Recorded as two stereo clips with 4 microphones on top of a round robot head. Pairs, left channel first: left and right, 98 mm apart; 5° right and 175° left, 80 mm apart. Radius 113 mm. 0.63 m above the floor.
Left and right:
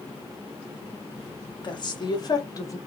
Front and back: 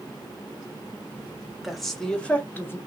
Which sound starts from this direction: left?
A woman speaking, at 1.6 s.